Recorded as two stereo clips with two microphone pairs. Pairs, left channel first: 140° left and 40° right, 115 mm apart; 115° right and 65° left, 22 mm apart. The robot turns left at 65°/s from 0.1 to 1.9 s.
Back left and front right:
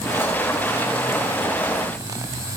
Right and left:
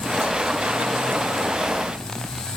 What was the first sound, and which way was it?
Only background noise.